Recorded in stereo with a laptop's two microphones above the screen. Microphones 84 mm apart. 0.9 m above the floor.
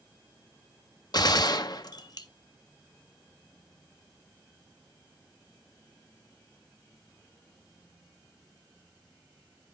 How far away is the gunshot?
About 0.5 m.